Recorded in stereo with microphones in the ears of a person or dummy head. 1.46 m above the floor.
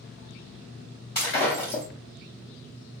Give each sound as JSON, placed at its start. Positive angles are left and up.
{"t": 1.1, "sound": "breaking glass", "side_deg": 20, "distance_m": 1.1}